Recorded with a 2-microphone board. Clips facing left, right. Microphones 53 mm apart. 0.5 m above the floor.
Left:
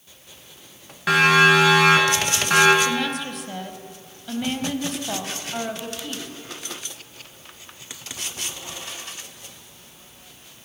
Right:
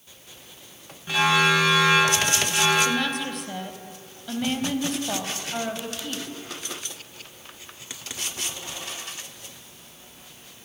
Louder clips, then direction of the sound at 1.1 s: Left 5 dB; 75° left (ahead or behind).